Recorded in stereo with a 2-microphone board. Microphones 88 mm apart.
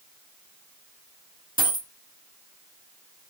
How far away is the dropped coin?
About 0.8 m.